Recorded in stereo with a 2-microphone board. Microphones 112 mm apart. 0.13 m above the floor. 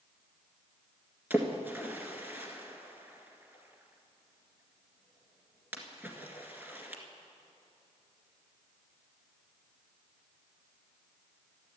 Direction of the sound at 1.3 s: 15° right (ahead or behind).